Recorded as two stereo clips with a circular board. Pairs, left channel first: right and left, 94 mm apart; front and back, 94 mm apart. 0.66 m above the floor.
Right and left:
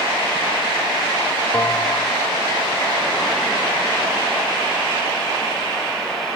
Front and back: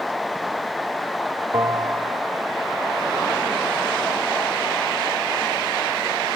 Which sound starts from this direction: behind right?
A bell, at 1.5 s.